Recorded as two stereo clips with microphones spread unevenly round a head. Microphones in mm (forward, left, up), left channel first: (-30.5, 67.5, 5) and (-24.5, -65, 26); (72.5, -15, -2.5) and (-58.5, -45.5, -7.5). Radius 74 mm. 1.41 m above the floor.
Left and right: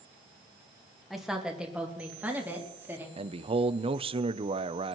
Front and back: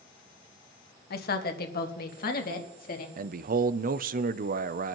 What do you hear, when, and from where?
1.1 s a woman speaking: straight ahead, 1.5 m; by 3.1 s 10° right, 2.5 m
3.2 s a man speaking: 140° right, 0.6 m